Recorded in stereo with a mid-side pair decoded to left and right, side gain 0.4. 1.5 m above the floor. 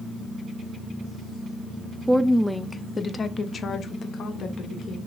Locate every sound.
2.1 s a woman speaking: 20° right, 0.6 m; by 5.0 s 75° left, 1.5 m